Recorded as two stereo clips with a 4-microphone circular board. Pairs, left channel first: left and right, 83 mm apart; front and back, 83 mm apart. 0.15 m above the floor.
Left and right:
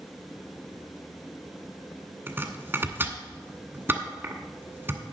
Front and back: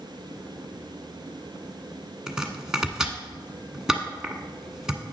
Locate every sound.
2.3 s chopping: 105° right, 1.1 m